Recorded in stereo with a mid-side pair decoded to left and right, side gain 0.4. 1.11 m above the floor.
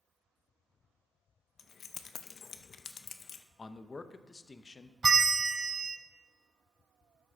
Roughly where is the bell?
Ahead right.